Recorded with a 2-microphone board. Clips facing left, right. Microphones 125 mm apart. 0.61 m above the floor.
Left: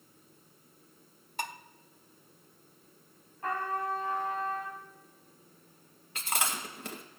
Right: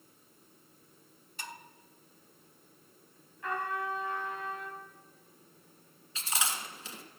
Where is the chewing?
55° left (ahead or behind), 1.7 m.